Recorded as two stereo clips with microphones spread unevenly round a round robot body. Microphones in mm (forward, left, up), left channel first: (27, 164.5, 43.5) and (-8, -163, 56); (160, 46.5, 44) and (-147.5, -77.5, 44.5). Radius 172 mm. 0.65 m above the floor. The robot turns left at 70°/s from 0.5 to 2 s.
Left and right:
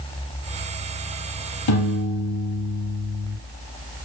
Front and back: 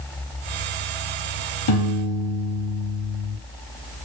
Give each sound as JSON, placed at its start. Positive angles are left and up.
{"t": 1.7, "sound": "a piano", "azimuth_deg": 55, "distance_m": 0.7}